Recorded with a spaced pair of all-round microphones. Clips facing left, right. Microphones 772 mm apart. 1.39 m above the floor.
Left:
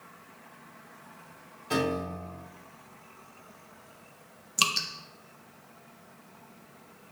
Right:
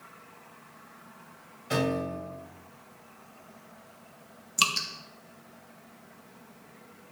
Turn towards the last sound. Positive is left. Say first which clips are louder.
# even
turn(degrees=0)  # may be behind; listen again after turning